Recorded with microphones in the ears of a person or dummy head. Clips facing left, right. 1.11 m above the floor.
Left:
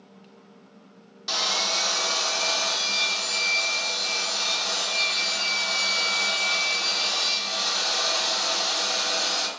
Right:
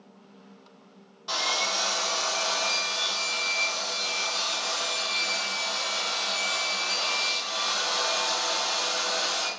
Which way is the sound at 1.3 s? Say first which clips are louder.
Left 1 dB; 25° left (ahead or behind).